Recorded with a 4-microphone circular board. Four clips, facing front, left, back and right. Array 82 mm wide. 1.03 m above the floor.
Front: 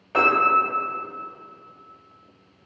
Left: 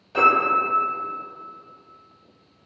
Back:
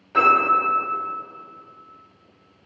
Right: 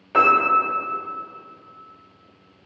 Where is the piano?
65° right, 1.0 m.